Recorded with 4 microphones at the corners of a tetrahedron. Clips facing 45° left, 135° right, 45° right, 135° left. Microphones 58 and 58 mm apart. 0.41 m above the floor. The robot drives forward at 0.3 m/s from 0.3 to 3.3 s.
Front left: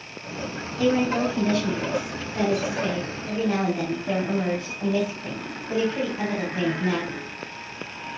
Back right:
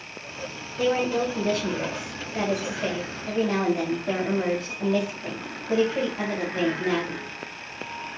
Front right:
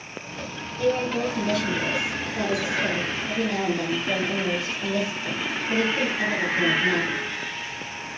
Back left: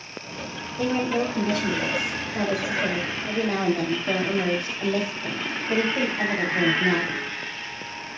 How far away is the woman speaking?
About 1.2 m.